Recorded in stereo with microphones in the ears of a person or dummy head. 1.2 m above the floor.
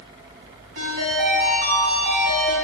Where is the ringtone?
55° right (ahead or behind), 3.5 m.